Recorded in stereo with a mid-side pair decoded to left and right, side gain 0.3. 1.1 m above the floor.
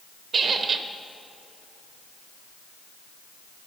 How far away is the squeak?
About 1.1 m.